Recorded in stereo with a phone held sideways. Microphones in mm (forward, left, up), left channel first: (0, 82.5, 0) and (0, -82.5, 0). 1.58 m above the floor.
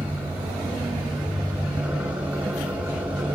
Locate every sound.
0.0 s an engine running: 10° right (ahead or behind), 2.5 m